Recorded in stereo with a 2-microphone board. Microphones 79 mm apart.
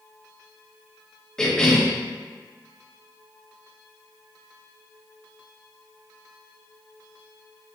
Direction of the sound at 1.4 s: 10° left (ahead or behind).